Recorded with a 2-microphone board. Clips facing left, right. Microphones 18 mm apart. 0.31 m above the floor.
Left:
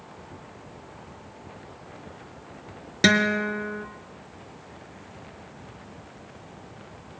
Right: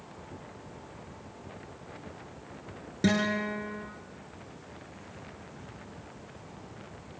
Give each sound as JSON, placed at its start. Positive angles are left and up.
{"t": 3.0, "sound": "a guitar", "side_deg": 65, "distance_m": 2.0}